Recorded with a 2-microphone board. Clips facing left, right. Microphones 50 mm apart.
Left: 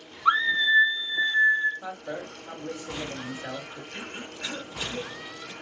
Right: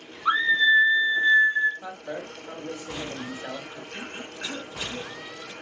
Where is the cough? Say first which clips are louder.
Right 1 dB; 20° right (ahead or behind), 1.7 m.